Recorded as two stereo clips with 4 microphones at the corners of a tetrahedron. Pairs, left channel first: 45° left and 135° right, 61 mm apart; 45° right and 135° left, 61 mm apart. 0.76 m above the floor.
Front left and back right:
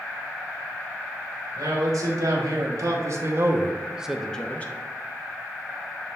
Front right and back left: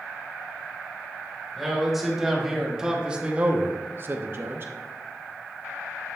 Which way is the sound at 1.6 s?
135° right.